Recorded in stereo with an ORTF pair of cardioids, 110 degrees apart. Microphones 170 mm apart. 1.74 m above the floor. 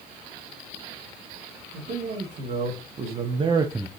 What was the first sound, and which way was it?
A man speaking, 55° right.